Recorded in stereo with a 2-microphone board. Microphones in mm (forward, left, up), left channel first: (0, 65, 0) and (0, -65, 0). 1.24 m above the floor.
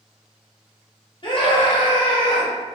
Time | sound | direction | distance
1.2 | a scream | 40° left (ahead or behind) | 1.0 m